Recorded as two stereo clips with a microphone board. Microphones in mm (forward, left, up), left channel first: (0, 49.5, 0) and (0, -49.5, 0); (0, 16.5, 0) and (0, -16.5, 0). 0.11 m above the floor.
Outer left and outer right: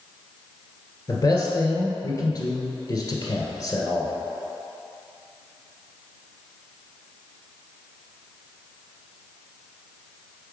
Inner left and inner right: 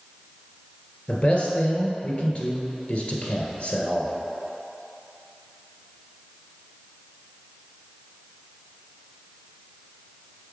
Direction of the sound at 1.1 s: 40° left (ahead or behind).